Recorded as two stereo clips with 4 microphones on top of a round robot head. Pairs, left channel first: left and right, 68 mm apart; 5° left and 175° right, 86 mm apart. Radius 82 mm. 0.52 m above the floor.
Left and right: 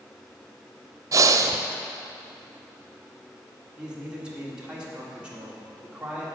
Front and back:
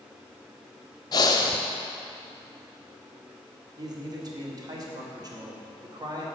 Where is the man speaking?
160° right, 1.8 m.